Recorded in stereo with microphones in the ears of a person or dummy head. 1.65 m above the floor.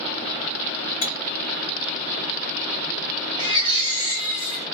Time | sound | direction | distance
1.0 | cutlery clinking | 50° left (ahead or behind) | 1.9 m
3.4 | a baby crying | 25° left (ahead or behind) | 1.4 m